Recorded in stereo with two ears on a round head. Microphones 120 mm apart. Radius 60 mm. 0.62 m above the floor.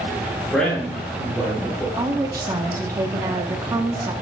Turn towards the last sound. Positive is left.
turn(degrees=-25)  # may be behind; listen again after turning